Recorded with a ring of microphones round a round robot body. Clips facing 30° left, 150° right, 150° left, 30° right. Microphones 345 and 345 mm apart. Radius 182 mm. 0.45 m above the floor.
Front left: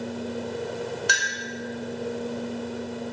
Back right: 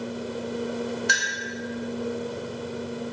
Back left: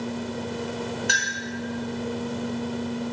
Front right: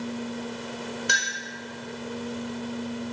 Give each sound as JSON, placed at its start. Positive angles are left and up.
{"t": 1.1, "sound": "a clink", "azimuth_deg": 50, "distance_m": 0.8}